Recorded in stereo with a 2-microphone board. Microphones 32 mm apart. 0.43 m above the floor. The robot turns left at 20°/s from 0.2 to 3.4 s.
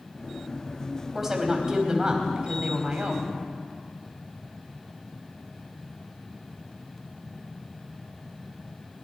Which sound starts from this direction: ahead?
A woman speaking, at 1.1 s.